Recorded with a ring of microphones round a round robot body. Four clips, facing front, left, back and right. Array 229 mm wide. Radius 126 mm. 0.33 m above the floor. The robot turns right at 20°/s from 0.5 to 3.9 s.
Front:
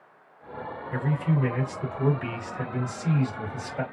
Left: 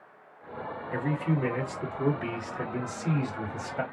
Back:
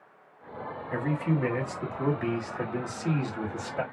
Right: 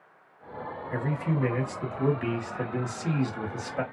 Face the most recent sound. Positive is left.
turn(degrees=-105)